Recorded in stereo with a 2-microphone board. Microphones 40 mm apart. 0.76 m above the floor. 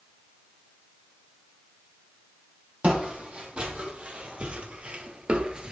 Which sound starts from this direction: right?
Footsteps, at 2.8 s.